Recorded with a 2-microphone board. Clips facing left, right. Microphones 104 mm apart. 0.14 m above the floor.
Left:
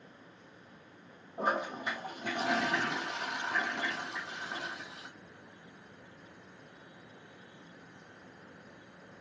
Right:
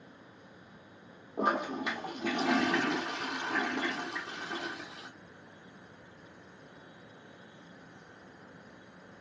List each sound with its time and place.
1.4 s a toilet flushing: 75° right (ahead or behind), 0.8 m